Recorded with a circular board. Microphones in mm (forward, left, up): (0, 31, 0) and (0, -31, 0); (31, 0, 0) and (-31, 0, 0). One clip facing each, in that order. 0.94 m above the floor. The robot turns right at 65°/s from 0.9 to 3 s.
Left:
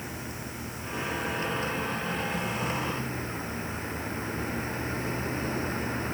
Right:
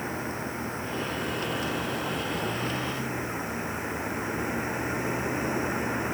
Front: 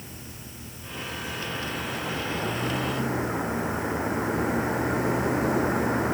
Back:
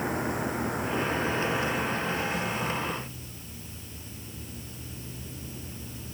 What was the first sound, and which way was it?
A vehicle, 150° right.